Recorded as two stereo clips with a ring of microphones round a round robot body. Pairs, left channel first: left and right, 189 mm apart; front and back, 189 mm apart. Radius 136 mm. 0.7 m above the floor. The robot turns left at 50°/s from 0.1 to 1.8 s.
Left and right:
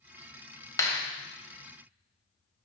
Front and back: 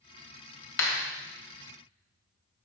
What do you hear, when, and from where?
0.8 s a clap: 15° left, 2.5 m; by 1.0 s 5° left, 2.5 m